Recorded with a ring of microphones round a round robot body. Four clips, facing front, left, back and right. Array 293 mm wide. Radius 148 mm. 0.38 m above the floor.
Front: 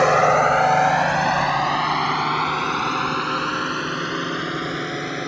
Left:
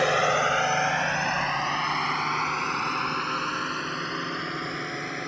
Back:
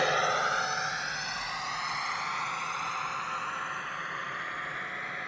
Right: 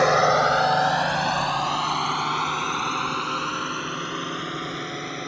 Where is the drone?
25° right; by 5.3 s 5° right.